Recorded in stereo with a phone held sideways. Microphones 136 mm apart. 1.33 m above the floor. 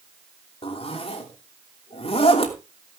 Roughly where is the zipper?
Left.